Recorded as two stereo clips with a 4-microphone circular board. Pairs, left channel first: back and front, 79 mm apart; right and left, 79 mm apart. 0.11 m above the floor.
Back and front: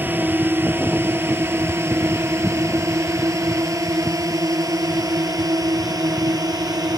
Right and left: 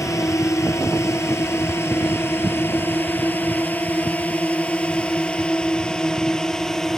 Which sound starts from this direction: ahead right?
A drone, at 0.0 s.